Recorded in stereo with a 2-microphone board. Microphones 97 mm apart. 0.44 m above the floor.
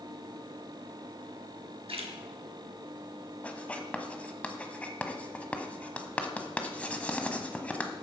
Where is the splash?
75° right (ahead or behind), 2 m.